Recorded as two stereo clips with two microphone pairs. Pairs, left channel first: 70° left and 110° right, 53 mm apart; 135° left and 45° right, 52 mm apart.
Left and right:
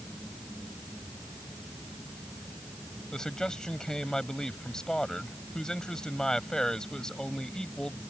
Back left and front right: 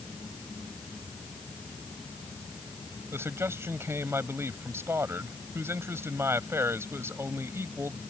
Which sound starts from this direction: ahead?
A man speaking, at 3.1 s.